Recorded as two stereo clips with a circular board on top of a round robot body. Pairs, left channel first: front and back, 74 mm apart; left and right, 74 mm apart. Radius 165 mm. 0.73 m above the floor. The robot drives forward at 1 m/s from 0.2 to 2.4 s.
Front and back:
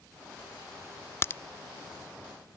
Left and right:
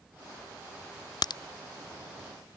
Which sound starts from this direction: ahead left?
A crack, at 1.2 s.